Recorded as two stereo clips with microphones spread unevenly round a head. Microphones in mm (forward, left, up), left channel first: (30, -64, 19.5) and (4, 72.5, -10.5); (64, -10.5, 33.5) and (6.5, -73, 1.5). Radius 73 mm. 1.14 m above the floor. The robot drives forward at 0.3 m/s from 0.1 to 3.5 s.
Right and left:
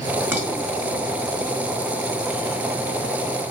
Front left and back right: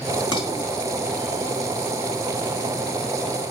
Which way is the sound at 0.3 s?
25° left.